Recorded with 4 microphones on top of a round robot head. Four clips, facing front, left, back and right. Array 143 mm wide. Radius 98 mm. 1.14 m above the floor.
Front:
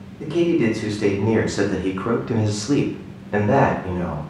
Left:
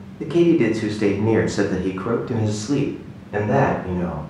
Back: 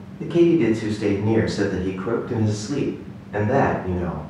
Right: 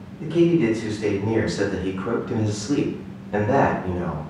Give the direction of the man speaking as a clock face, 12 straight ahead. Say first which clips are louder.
Left 2 dB, back 2 dB; 9 o'clock.